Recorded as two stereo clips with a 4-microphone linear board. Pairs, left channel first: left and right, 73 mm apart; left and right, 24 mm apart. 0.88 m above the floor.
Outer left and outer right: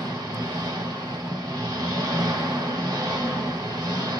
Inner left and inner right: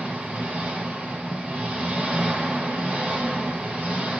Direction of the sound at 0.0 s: 80° right.